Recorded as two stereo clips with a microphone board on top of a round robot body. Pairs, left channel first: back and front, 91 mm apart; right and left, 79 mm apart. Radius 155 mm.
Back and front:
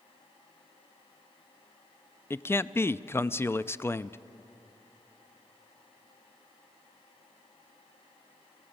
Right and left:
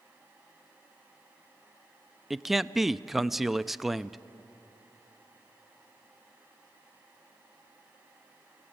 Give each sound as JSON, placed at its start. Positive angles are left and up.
{"t": 2.3, "sound": "a man speaking", "azimuth_deg": 175, "distance_m": 0.6}